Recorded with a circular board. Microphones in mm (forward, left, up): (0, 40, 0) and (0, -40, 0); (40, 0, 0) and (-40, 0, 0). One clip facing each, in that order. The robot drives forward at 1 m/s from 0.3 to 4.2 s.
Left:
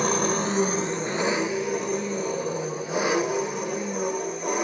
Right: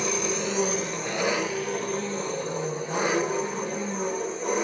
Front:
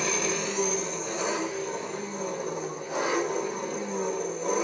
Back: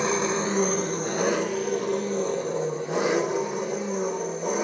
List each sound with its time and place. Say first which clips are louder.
0.0 s an engine running: left 4 dB, back 5 dB; 125° left, 0.7 m; by 4.6 s 170° left, 4.5 m